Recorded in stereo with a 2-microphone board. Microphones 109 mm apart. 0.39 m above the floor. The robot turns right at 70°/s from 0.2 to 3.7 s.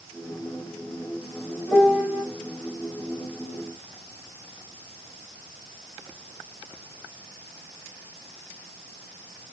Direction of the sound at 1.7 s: 170° left.